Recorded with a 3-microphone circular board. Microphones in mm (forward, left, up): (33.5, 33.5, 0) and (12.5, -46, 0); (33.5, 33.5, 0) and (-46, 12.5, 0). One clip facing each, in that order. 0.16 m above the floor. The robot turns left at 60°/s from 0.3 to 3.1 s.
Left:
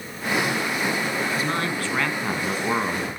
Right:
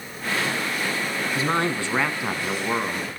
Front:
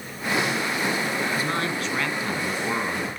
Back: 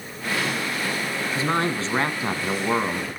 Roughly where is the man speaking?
Behind right.